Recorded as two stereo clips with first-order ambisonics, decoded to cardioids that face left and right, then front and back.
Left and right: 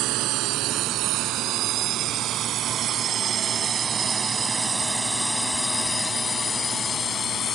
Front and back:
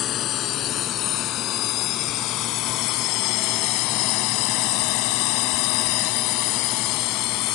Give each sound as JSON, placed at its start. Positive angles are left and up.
{"t": 0.0, "sound": "a drone", "azimuth_deg": -50}